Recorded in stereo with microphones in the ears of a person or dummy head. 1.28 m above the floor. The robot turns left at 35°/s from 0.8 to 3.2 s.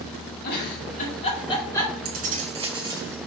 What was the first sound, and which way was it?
A giggle, 50° left (ahead or behind).